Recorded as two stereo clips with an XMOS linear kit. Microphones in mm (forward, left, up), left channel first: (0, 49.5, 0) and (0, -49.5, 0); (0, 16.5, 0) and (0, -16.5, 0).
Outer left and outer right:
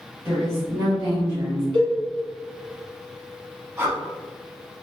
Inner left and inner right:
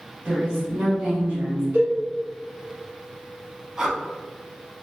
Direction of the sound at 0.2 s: 40° right (ahead or behind).